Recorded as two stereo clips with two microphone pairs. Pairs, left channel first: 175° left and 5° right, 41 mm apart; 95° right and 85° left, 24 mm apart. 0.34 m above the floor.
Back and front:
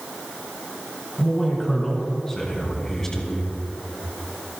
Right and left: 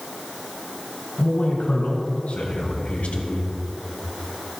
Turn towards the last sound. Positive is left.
turn(degrees=-110)